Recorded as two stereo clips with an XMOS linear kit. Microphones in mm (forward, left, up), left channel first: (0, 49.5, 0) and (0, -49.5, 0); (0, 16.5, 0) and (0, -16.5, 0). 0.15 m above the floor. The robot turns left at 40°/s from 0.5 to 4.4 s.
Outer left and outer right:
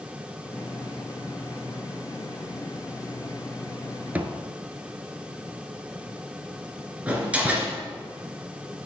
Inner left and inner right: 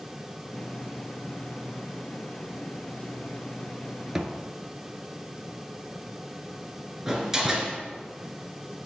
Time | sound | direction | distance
4.2 | a thud | 15° right (ahead or behind) | 1.0 m
7.1 | a door slam | 15° right (ahead or behind) | 2.0 m